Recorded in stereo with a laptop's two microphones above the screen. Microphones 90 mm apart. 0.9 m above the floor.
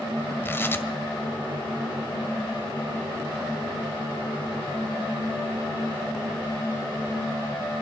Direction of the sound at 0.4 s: 25° left (ahead or behind).